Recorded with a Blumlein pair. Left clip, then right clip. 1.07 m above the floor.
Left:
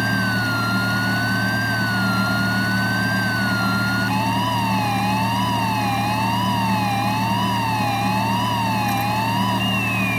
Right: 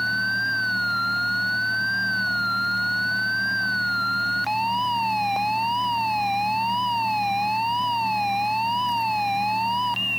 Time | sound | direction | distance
0.0 | a fan | 35° left | ?